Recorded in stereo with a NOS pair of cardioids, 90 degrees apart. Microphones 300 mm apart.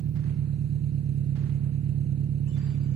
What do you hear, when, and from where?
0.0 s an engine running: 60° right